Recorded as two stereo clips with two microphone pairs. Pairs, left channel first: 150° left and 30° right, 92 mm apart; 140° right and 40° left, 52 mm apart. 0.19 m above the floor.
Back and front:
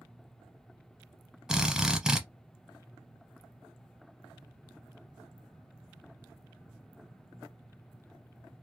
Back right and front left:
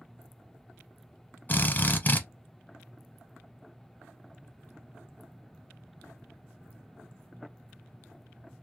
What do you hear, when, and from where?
1.5 s a drill: 110° right, 0.8 m